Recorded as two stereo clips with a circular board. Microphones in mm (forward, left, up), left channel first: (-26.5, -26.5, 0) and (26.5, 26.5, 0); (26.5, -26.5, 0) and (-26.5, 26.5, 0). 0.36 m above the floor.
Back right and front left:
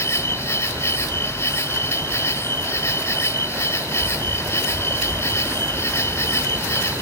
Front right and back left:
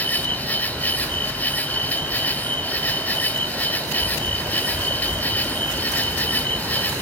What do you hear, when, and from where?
0.0 s an insect: 100° right, 1.8 m